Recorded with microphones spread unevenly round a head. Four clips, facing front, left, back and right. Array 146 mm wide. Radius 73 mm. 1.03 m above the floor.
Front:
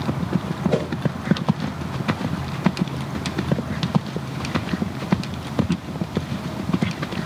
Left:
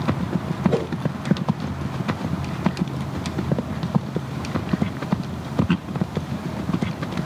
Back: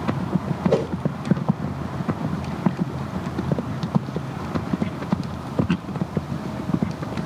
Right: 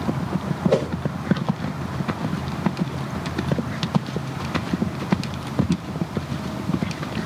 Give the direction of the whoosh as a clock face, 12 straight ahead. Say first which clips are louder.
Right 3 dB, back 2 dB; 4 o'clock.